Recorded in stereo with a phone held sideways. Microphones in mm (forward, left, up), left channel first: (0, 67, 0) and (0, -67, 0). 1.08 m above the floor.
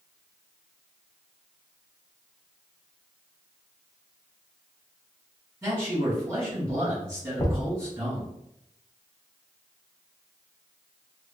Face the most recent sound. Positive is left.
turn(degrees=25)  # may be behind; listen again after turning